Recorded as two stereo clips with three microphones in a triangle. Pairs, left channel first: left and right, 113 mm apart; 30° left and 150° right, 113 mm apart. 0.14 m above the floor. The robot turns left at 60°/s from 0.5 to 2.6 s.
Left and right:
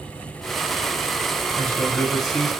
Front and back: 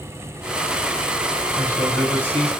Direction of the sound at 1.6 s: 40° left.